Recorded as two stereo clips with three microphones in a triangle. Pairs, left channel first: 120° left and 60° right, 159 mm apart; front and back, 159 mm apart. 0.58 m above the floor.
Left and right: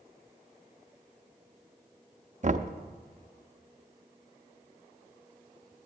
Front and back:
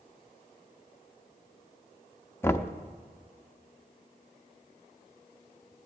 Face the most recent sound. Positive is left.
turn(degrees=-75)